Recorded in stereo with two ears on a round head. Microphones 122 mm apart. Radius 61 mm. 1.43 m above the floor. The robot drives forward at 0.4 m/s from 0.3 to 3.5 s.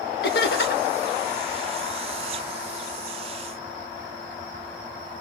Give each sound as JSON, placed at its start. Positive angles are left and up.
{"t": 0.2, "sound": "laughter", "side_deg": 85, "distance_m": 2.0}